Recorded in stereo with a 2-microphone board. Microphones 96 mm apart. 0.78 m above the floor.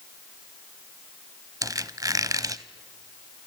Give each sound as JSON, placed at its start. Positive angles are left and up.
{"t": 1.6, "sound": "a squeak", "side_deg": -40, "distance_m": 0.8}